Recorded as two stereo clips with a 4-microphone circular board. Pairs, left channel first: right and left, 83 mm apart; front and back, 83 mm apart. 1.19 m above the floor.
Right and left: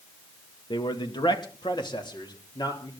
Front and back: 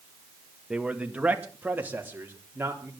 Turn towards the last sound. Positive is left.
turn(degrees=-120)